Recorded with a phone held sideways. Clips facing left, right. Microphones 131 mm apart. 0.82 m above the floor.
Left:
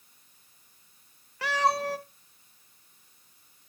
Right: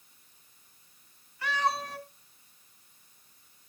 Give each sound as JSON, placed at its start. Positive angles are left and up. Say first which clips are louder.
{"t": 1.4, "sound": "a cat meowing", "louder": "left 4 dB", "side_deg": 80, "distance_m": 1.3}